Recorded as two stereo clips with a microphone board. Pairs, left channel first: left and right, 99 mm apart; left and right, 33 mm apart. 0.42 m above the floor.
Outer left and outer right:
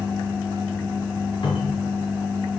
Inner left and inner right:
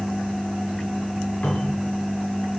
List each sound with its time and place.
1.4 s a cupboard door: 60° left (ahead or behind), 2.5 m